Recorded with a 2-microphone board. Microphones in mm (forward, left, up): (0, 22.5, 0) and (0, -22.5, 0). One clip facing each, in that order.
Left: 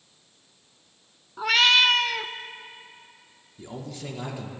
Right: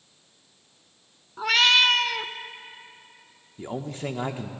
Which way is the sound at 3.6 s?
35° right (ahead or behind).